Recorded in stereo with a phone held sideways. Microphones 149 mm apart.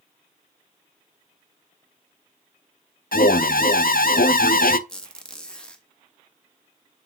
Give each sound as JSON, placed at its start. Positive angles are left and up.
{"t": 3.1, "sound": "an alarm", "side_deg": 75, "distance_m": 0.5}
{"t": 4.9, "sound": "a squeak", "side_deg": 5, "distance_m": 1.0}